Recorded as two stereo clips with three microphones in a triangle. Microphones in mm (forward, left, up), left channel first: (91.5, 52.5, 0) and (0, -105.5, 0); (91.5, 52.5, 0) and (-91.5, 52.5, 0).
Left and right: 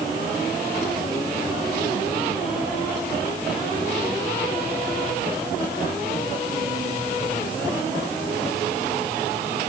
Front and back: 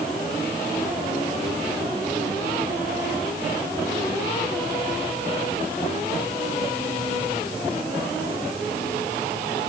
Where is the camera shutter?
No camera shutter in this recording.